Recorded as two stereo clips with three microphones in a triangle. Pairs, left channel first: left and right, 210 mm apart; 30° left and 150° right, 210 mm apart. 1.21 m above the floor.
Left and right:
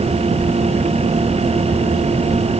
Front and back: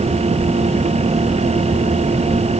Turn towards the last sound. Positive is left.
No sound to turn to.